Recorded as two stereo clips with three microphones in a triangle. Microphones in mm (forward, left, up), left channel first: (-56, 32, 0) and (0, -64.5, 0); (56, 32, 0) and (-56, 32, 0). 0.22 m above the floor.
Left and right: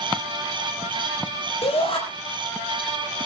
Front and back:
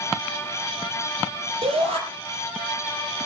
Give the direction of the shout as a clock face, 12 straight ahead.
7 o'clock.